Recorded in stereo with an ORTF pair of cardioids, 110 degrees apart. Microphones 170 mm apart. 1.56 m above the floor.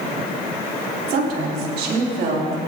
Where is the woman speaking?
65° right, 5 m; by 2.6 s 70° right, 3.5 m.